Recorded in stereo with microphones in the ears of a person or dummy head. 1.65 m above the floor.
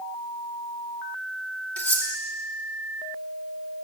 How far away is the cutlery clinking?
About 1.8 m.